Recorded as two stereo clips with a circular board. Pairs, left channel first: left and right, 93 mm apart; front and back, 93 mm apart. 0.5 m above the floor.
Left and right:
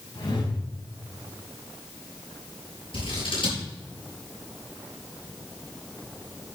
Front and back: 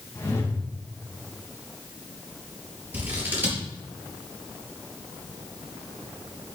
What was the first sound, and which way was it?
A whoosh, 55° left.